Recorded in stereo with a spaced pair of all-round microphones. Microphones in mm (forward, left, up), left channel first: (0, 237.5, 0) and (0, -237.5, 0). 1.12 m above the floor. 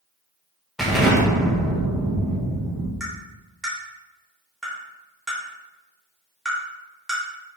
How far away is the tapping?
About 3.5 m.